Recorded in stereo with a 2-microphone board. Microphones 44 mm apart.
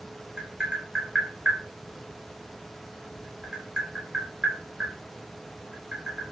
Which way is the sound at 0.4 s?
20° right (ahead or behind).